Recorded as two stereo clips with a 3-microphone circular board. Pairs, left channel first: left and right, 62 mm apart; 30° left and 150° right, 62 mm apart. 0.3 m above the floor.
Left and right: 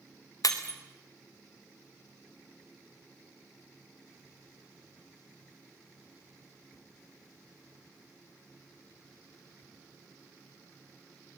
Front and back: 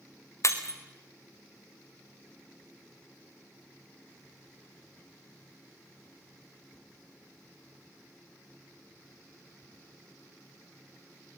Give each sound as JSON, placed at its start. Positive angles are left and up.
{"t": 0.4, "sound": "breaking glass", "azimuth_deg": 70, "distance_m": 1.7}